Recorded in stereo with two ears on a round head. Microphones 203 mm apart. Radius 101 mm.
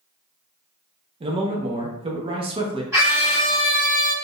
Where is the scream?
15° right (ahead or behind), 1.9 m.